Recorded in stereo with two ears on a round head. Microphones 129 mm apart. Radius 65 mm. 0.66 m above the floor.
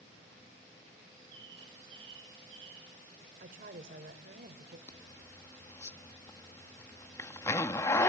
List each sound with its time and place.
1.1 s a bird: 35° right (ahead or behind), 6.5 m
3.4 s a woman speaking: 65° right (ahead or behind), 2.5 m
4.9 s a zipper: 20° left (ahead or behind), 0.8 m